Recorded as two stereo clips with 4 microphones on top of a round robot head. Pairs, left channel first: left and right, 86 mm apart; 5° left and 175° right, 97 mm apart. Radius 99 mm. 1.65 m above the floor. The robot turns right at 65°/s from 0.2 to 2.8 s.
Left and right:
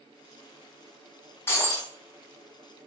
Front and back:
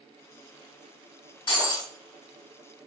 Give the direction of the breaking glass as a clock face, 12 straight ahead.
11 o'clock.